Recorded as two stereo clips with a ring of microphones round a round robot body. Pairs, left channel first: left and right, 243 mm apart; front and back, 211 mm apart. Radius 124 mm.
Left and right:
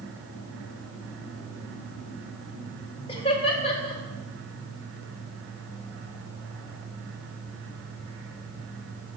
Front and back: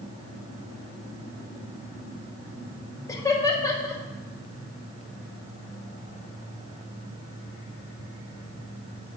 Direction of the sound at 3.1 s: 55° left.